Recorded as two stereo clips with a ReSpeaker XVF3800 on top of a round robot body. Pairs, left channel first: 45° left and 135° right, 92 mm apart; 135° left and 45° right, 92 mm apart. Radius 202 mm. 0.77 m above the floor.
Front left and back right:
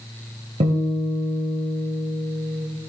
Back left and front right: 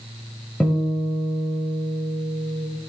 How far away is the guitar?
About 2.5 m.